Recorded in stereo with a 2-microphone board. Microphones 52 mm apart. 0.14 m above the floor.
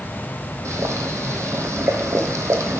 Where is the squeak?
No squeak in this recording.